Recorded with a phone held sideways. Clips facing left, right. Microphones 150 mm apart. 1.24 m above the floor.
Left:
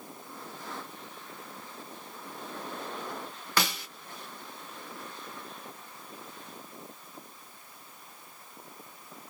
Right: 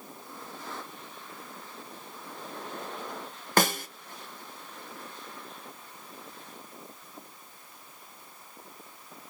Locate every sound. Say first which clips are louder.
3.6 s a snare drum: right 6 dB; 50° right (ahead or behind), 0.6 m